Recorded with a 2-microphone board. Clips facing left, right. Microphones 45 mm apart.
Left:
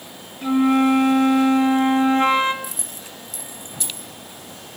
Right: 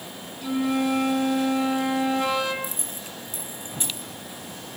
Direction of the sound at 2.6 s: 40° right (ahead or behind).